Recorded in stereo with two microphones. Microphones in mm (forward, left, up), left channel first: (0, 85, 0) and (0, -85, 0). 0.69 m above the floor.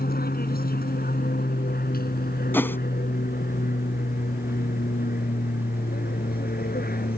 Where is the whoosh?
10° left (ahead or behind).